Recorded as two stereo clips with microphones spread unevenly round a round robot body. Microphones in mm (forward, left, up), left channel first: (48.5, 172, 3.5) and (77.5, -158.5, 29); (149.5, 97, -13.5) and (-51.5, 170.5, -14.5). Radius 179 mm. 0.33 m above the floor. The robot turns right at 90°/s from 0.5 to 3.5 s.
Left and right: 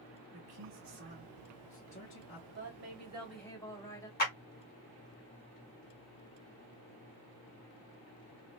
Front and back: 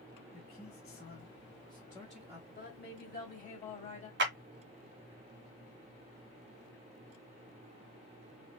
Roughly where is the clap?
Behind left.